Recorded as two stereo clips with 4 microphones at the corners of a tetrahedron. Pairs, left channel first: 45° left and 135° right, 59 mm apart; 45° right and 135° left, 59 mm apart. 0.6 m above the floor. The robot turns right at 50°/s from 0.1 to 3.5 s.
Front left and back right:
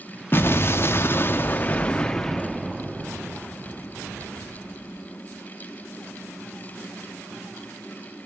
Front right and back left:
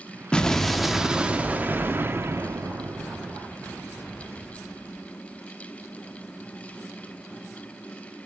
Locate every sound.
0.3 s an explosion: 25° left, 0.6 m; by 3.4 s 175° left, 0.6 m